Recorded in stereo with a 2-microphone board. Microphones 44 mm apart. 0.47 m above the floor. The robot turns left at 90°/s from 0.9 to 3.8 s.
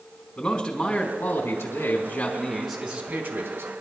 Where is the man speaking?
165° left, 4 m; by 3.7 s 90° right, 4 m.